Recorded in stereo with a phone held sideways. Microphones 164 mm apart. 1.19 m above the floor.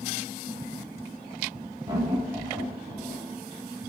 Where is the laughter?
25° right (ahead or behind), 0.7 m; by 3.2 s 5° left (ahead or behind), 1.7 m.